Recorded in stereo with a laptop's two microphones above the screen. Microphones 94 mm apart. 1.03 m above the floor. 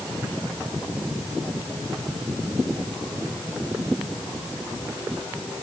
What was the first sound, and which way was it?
Only background noise.